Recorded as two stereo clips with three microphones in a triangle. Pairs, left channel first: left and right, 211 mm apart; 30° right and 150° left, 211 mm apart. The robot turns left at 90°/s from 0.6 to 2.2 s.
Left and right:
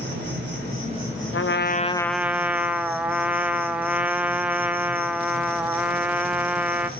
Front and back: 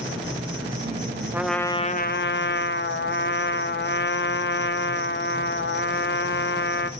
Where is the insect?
125° right, 4.5 m; by 7.0 s 90° left, 4.5 m.